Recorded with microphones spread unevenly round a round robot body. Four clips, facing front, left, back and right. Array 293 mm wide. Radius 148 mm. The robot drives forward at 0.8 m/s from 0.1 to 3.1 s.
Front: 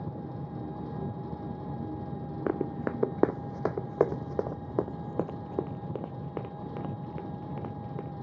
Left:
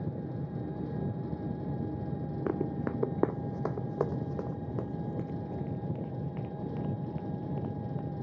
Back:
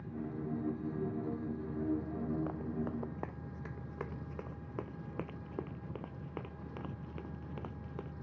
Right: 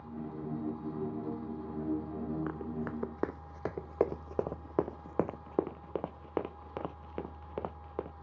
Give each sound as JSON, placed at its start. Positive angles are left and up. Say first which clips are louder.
{"t": 0.0, "sound": "an engine running", "louder": "left 3 dB, front 2 dB", "azimuth_deg": 65}
{"t": 2.5, "sound": "running footsteps", "louder": "left 5 dB, front 8 dB", "azimuth_deg": 25}